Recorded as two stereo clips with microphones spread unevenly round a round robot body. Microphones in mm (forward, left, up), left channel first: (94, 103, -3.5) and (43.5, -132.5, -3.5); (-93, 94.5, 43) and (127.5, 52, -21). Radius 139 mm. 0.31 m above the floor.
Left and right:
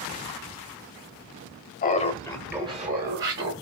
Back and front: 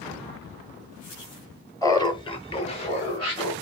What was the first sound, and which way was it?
Laughter, 80° left.